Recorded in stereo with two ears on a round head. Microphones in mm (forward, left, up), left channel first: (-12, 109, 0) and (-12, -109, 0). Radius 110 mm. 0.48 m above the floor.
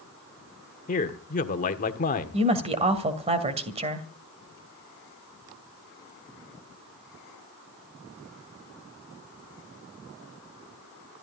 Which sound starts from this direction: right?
A woman speaking, at 2.3 s.